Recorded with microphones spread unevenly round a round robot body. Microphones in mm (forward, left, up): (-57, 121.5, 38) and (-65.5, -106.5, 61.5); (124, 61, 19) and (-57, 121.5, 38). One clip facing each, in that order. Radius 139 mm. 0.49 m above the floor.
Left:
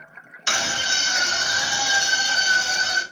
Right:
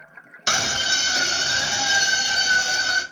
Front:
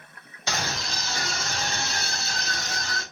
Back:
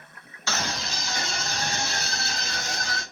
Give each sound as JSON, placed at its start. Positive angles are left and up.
{"t": 0.5, "sound": "a scream", "azimuth_deg": -70, "distance_m": 0.8}